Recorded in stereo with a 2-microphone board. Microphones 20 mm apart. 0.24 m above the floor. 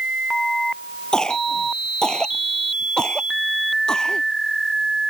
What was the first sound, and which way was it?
A cough, 40° left (ahead or behind).